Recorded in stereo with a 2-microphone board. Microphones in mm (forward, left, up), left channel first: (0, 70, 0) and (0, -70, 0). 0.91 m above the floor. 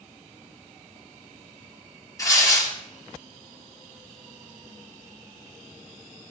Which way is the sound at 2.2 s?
25° left (ahead or behind).